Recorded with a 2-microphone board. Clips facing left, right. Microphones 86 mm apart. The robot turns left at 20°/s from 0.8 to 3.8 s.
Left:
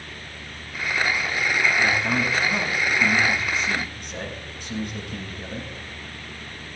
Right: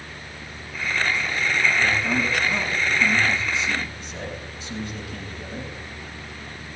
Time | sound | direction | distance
1.8 | a man speaking | 165° left | 10 m